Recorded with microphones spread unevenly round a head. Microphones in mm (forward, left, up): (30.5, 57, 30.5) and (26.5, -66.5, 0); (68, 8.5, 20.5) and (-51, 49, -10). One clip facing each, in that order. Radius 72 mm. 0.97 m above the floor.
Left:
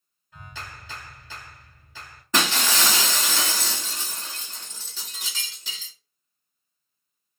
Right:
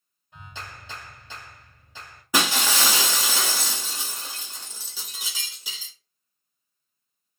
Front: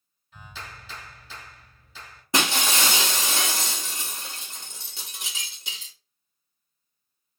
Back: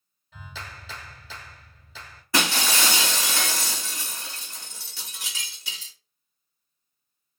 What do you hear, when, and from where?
0.3 s a clap: 165° right, 1.1 m
2.3 s breaking glass: straight ahead, 0.7 m